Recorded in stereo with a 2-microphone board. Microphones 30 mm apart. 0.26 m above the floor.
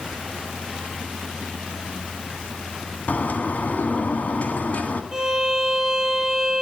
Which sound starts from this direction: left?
A bird, at 3.1 s.